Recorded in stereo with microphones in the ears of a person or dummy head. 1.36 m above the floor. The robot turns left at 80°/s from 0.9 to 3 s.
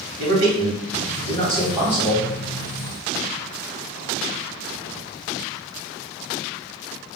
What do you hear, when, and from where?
0.2 s a man speaking: 95° right, 1.6 m; by 2.2 s 160° left, 1.6 m